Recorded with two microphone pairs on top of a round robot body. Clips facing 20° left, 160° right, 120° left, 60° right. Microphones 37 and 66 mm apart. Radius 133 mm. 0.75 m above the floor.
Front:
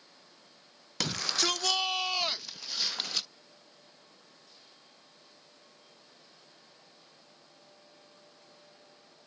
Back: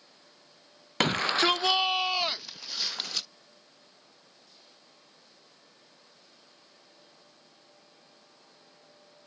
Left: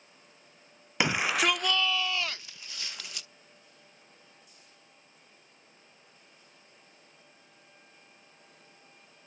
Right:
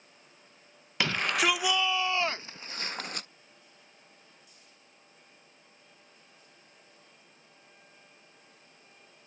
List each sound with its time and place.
1.0 s a shout: 150° right; by 3.3 s 65° right